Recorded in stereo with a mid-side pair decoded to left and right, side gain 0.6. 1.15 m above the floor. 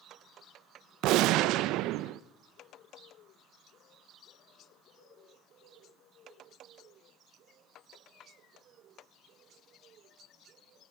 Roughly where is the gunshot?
Right.